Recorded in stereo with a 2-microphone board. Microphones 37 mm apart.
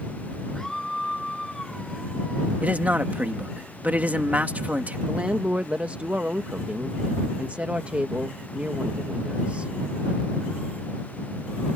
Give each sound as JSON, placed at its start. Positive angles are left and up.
{"t": 0.6, "sound": "a scream", "side_deg": 10}
{"t": 2.6, "sound": "a man speaking", "side_deg": -45}
{"t": 5.1, "sound": "a woman speaking", "side_deg": -35}